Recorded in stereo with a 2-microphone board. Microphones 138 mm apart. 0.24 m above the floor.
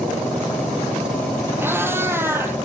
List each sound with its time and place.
1.6 s a cat meowing: 15° right (ahead or behind), 4 m